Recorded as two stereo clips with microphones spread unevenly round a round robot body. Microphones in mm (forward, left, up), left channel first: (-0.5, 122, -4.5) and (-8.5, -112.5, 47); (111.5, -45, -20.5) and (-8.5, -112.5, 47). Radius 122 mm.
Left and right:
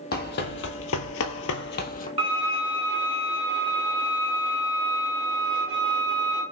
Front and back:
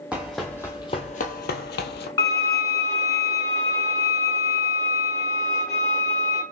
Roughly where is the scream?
I don't hear a scream.